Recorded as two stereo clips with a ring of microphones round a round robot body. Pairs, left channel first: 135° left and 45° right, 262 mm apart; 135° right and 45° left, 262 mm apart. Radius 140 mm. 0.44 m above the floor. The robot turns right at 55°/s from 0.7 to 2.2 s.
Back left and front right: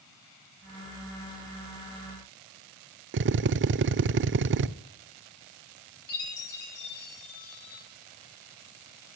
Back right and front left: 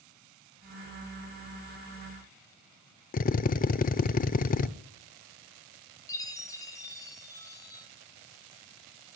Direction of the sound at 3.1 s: 80° right.